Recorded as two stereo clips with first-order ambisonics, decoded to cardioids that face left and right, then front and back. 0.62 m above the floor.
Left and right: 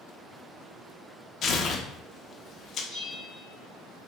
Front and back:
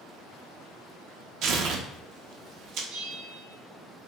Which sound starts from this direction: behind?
A bell, at 2.9 s.